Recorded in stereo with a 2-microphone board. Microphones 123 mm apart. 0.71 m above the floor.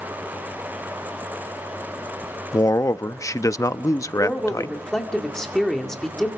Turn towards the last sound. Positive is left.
turn(degrees=5)  # may be behind; listen again after turning